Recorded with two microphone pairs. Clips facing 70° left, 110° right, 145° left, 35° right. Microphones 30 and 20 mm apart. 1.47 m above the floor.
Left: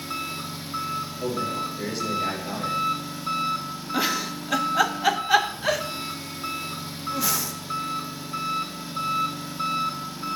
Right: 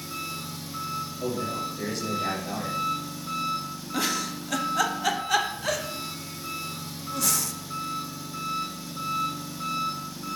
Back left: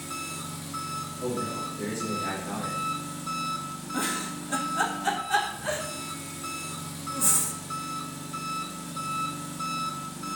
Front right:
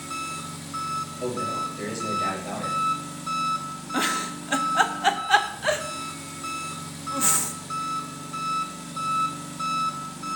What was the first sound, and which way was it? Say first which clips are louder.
An engine running: left 3 dB, front right 3 dB; 30° left.